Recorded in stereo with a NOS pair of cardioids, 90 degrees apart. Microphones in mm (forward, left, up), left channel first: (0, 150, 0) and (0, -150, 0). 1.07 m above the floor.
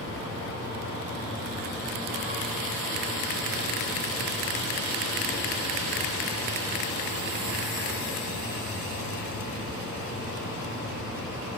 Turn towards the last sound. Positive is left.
turn(degrees=45)